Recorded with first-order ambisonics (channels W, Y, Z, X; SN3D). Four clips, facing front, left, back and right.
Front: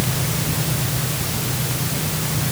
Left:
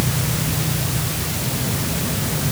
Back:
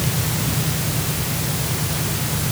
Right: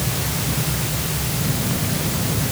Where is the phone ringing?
I don't hear a phone ringing.